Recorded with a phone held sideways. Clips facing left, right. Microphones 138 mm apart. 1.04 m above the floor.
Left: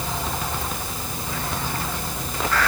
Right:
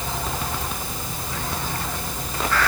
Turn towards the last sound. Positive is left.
No sound to turn to.